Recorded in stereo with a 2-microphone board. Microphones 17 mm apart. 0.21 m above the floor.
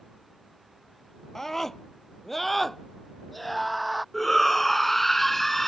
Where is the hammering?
I don't hear hammering.